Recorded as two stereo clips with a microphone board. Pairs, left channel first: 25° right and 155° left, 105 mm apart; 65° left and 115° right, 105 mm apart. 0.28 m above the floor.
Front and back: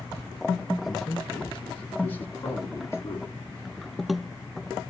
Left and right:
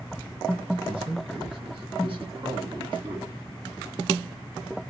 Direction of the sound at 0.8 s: 115° right.